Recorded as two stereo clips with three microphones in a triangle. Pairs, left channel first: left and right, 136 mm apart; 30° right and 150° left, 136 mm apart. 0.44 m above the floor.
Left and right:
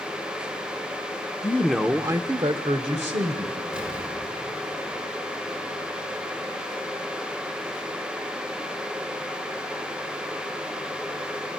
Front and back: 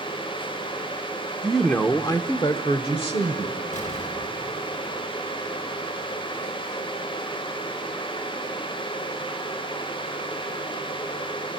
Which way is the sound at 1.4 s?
70° left.